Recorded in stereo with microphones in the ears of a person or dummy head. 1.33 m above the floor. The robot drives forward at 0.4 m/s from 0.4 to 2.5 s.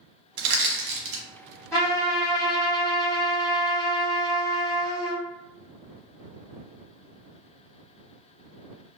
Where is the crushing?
65° right (ahead or behind), 1.2 m; by 1.2 s 80° right, 1.1 m.